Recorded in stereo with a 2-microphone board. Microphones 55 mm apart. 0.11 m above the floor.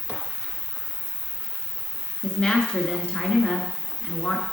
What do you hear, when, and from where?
0.0 s an insect: 55° left (ahead or behind), 1.4 m
2.2 s a woman speaking: 20° left (ahead or behind), 1.1 m